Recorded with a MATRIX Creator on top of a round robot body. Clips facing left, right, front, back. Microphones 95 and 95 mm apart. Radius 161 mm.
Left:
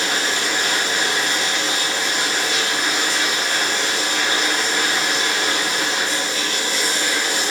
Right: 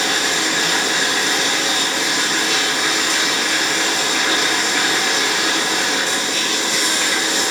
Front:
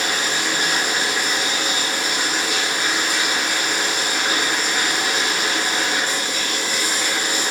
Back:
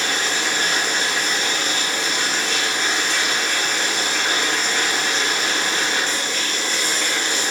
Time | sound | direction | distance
0.0 | running water | 80° right | 2 m